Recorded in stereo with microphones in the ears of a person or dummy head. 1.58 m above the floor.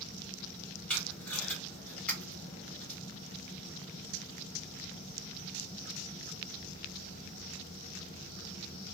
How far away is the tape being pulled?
About 1.6 m.